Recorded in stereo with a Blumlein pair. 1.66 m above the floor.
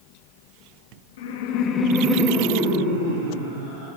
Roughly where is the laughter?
Ahead left.